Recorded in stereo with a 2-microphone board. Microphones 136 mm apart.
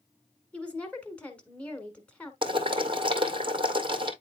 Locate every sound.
0.5 s a woman speaking: 10° left (ahead or behind), 1.4 m
2.4 s boiling: 40° right (ahead or behind), 1.8 m